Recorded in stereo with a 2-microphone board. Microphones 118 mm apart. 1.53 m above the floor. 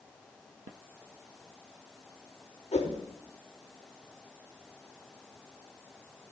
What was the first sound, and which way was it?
A whoosh, 70° left (ahead or behind).